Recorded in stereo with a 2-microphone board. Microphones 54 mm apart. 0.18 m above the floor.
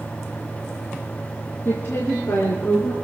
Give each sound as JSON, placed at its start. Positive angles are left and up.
{"t": 1.6, "sound": "a woman speaking", "side_deg": 45, "distance_m": 3.0}